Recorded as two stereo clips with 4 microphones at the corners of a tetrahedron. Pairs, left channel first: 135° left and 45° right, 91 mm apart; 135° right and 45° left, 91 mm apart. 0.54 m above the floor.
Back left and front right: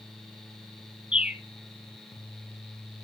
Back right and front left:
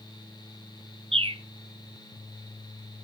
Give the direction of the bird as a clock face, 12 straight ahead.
11 o'clock.